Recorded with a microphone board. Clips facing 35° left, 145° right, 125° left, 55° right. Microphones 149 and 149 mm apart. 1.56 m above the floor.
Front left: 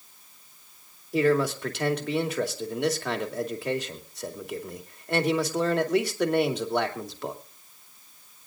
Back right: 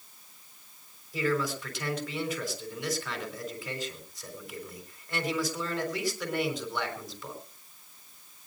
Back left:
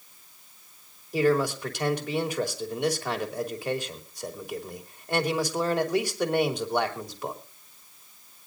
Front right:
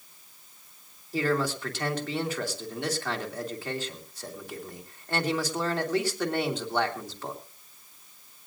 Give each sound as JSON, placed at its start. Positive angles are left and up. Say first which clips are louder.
{"t": 1.1, "sound": "a man speaking", "louder": "front left 7 dB, back left 4 dB", "azimuth_deg": 50, "distance_m": 2.5}